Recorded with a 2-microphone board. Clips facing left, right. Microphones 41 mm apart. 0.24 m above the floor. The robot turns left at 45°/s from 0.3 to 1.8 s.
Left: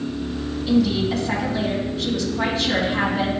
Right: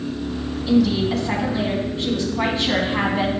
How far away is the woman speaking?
About 1.9 m.